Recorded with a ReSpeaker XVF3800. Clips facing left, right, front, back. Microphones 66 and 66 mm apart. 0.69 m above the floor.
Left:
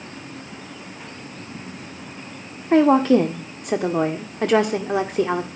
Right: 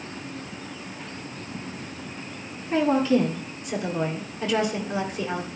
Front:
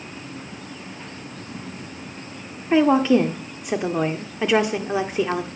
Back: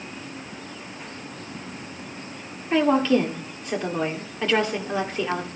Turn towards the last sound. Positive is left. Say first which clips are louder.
# left 6 dB, front 3 dB
turn(degrees=75)